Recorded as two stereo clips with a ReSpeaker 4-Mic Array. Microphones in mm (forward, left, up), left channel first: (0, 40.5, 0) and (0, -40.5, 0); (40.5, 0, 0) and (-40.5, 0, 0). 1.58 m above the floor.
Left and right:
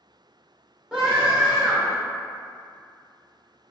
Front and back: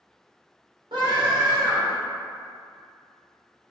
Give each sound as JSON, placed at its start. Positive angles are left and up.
{"t": 0.9, "sound": "a scream", "azimuth_deg": -170, "distance_m": 1.8}